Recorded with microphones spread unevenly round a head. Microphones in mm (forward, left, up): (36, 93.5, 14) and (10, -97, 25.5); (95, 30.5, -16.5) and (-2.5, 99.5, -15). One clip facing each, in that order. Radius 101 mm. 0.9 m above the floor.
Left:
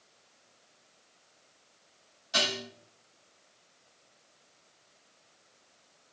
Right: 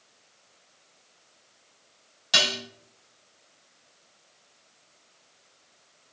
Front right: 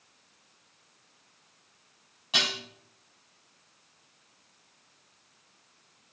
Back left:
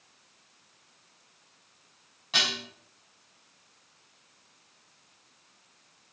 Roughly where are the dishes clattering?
Behind right.